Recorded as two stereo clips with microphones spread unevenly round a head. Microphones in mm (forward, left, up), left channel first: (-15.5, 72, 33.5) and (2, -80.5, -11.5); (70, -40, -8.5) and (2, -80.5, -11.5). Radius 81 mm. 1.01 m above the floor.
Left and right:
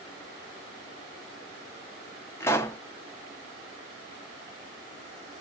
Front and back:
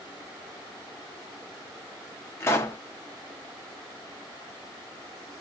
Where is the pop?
60° left, 0.5 m.